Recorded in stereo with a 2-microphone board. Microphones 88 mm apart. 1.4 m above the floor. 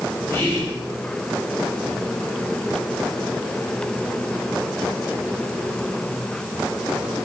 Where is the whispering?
25° left (ahead or behind), 0.8 m.